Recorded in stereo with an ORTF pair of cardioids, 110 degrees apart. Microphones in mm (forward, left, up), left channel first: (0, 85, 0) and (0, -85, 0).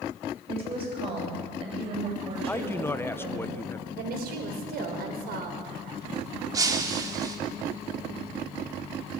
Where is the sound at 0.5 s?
35° right, 9 m.